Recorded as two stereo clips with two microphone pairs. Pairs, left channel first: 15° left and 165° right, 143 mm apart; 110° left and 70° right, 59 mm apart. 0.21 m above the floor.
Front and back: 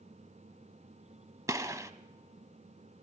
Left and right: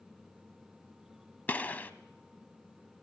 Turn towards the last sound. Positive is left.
turn(degrees=145)